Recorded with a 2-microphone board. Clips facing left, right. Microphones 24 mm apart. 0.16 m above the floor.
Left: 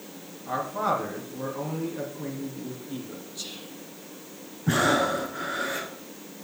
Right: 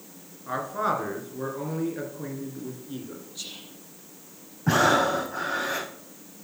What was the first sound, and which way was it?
A man speaking, 15° right (ahead or behind).